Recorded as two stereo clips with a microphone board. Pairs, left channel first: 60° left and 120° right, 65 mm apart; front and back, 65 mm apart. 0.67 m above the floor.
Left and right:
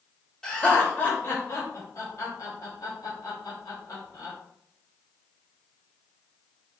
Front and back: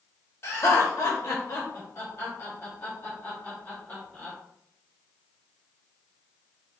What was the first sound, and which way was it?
Laughter, 20° right.